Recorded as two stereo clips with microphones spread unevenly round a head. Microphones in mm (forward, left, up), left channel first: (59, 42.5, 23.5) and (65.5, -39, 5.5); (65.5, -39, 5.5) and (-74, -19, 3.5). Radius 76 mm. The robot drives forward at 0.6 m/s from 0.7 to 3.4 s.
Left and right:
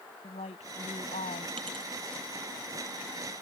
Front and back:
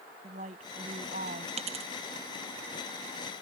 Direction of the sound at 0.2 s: 120° left.